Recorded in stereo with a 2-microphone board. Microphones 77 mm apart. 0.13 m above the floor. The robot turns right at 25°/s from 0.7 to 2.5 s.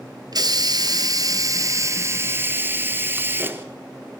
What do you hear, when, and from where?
0.3 s a hiss: 80° right, 1.6 m; by 3.6 s 35° right, 1.6 m